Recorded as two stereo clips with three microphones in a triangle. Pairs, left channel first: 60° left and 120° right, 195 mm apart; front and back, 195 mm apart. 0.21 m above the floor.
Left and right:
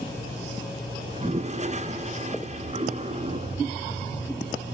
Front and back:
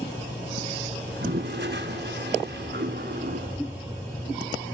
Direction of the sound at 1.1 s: 165° right.